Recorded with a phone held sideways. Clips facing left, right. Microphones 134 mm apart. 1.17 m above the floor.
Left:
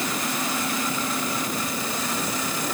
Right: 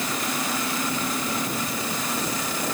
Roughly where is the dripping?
I don't hear dripping.